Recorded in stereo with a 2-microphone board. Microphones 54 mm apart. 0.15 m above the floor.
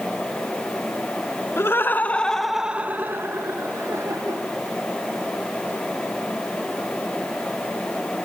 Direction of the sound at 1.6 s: 50° left (ahead or behind).